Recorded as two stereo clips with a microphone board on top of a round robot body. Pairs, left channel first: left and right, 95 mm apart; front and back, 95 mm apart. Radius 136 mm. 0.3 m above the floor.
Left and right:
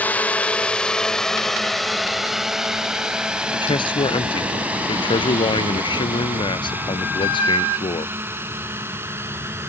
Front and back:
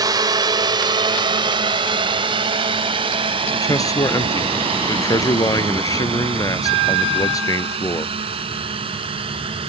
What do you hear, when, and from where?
0.0 s a drone: 155° left; by 9.7 s 155° right
3.5 s a man speaking: 55° left